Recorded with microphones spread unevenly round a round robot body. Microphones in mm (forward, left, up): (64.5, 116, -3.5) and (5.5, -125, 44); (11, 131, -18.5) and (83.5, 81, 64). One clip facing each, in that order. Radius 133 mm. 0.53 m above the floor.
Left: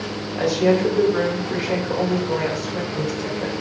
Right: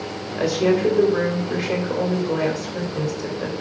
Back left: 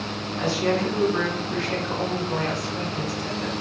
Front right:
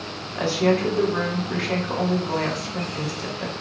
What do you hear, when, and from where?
0.4 s a woman speaking: 15° right, 3 m